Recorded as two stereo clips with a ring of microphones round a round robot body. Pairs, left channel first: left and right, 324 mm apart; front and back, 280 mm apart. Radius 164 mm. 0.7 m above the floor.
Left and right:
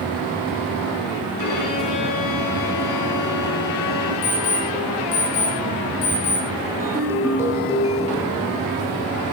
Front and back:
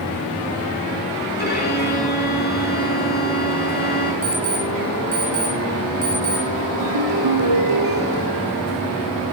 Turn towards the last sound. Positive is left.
turn(degrees=-170)